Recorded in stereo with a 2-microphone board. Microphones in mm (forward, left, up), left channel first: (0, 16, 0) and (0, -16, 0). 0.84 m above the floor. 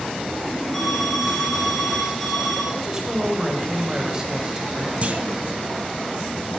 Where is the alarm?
5° left (ahead or behind), 5 m.